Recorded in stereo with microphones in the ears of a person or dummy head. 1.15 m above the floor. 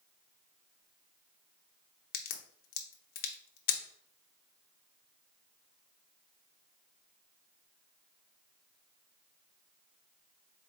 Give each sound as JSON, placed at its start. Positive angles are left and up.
{"t": 2.1, "sound": "a crack", "side_deg": 45, "distance_m": 0.5}